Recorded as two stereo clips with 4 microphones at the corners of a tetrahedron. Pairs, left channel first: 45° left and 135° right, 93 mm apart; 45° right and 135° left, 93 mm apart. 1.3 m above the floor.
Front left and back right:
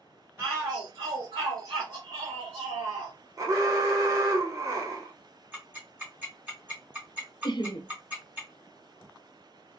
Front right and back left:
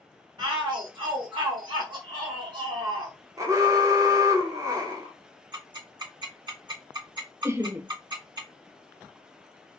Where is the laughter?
75° left, 0.6 m.